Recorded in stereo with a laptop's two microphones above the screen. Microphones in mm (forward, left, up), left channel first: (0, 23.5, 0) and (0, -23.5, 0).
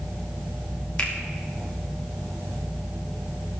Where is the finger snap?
35° left (ahead or behind), 0.9 m.